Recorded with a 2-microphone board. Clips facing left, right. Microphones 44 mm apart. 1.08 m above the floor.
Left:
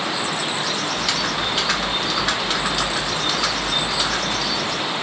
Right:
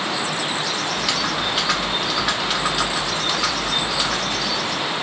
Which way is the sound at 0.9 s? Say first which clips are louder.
Even; centre (ahead or behind).